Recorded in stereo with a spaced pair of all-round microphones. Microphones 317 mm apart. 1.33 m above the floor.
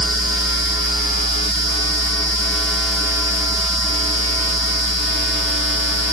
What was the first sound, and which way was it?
Only background noise.